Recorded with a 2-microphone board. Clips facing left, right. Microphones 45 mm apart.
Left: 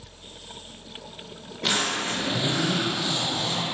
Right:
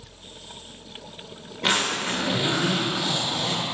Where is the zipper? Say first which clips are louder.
Right 2 dB; 35° right (ahead or behind), 2 m.